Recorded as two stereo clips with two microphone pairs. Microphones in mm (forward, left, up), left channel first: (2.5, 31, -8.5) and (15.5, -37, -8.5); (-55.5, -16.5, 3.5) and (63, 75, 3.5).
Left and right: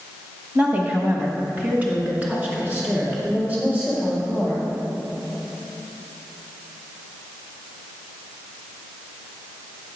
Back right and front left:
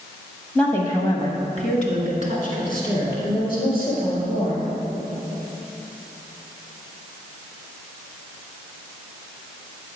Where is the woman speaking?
65° right, 1.1 m; by 4.6 s 150° right, 5 m.